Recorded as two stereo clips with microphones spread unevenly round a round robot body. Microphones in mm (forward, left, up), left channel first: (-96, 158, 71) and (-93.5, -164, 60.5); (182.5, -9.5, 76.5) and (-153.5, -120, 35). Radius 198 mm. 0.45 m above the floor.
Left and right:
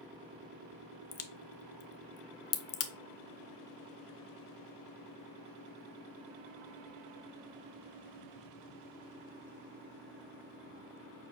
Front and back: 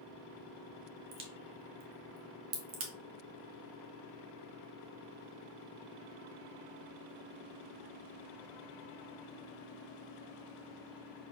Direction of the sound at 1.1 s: 145° left.